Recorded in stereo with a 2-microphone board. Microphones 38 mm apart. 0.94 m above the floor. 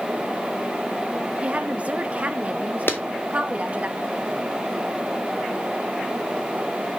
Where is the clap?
65° left (ahead or behind), 1.8 m.